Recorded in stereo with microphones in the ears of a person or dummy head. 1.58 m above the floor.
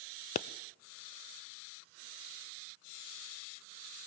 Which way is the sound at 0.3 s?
45° left (ahead or behind).